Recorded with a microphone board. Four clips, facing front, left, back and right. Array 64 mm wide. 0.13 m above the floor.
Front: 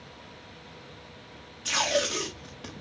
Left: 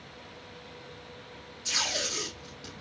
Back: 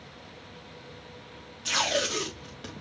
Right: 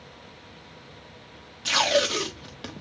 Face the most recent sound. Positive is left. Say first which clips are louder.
# right 12 dB, front 1 dB
turn(degrees=-90)